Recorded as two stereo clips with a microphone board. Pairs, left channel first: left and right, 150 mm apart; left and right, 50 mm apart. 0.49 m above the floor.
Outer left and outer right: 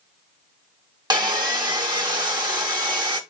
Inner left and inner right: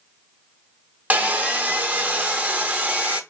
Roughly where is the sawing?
Right.